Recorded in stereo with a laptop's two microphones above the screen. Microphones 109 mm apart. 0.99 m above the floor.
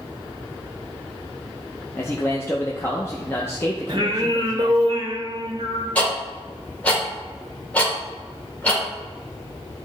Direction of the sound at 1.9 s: 25° left (ahead or behind).